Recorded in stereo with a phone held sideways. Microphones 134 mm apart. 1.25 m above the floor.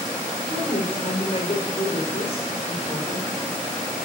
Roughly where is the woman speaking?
Left.